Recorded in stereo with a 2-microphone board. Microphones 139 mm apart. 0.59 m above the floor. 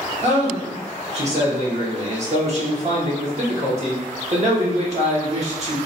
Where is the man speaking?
50° right (ahead or behind), 1.2 m.